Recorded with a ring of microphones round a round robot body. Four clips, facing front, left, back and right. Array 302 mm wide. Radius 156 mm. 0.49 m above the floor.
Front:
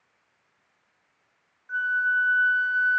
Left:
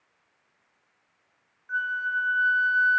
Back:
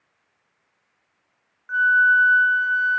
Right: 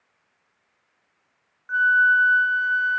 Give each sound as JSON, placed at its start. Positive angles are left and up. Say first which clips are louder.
{"t": 1.7, "sound": "a flute", "louder": "right 11 dB, back 8 dB", "azimuth_deg": -135, "distance_m": 1.0}